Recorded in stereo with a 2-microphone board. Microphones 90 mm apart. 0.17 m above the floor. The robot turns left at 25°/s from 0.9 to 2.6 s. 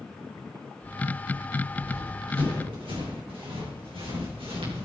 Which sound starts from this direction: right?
Running footsteps, at 1.7 s.